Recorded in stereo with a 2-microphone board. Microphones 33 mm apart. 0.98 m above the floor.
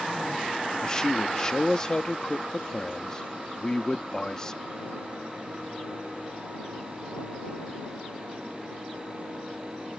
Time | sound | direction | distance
0.8 | a man speaking | 25° left (ahead or behind) | ?